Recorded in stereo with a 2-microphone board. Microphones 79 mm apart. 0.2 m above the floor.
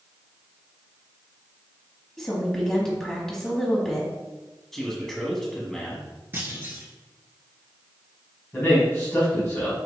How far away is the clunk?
About 1.1 m.